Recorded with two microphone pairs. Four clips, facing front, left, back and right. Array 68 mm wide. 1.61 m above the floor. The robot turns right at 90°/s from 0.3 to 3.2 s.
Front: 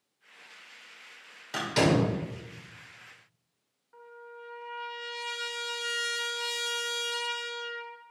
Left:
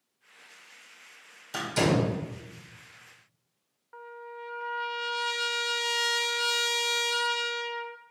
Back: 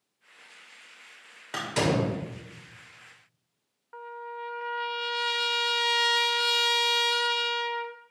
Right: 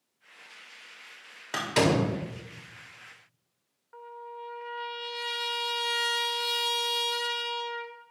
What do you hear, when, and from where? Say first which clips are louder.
1.5 s a door slam: right 1 dB, front 2 dB; 110° right, 4 m; by 2.1 s 55° right, 4 m
3.9 s a trumpet: even, back 9 dB; 170° left, 0.7 m